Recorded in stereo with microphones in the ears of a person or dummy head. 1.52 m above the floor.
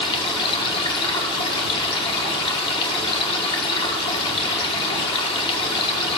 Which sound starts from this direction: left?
Running water, at 0.0 s.